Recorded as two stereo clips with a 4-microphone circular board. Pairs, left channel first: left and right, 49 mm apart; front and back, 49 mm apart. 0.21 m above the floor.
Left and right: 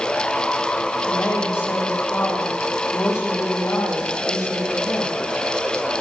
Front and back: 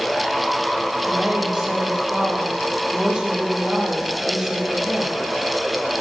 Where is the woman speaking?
105° left, 9 m.